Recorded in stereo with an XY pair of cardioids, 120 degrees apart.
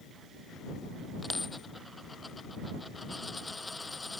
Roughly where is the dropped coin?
Ahead.